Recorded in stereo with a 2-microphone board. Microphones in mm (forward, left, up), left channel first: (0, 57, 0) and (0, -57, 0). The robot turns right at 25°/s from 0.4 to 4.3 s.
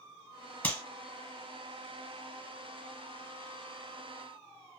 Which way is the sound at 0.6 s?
15° left (ahead or behind).